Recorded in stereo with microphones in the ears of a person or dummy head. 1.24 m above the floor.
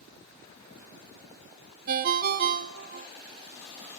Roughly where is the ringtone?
Right.